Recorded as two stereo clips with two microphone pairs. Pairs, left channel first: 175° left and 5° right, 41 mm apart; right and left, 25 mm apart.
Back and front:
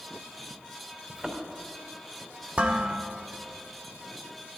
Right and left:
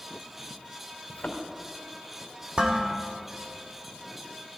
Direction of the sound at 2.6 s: 50° left.